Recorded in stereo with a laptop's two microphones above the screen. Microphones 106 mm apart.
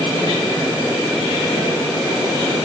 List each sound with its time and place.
Only background noise.